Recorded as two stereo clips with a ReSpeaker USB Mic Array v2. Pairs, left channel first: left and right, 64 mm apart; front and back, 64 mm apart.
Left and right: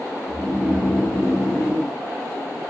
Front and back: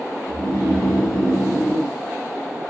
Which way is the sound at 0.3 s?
100° left.